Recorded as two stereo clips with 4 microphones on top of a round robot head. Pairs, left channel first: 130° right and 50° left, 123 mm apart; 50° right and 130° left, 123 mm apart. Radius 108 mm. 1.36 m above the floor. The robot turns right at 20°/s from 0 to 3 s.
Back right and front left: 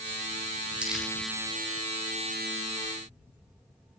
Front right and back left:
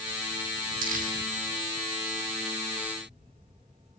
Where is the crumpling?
135° left, 2.5 m; by 1.1 s 140° left, 2.5 m.